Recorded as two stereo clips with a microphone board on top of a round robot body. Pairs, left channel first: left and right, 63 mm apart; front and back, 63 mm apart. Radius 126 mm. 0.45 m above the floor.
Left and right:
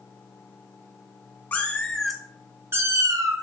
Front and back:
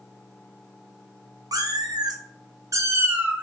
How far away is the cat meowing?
About 0.9 m.